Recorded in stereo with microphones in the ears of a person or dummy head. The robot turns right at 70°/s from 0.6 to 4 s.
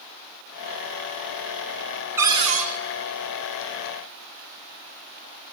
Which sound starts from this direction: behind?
A cupboard door, at 2.2 s.